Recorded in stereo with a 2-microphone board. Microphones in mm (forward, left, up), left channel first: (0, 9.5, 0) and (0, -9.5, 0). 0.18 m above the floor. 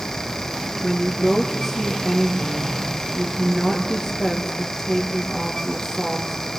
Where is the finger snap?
I don't hear a finger snap.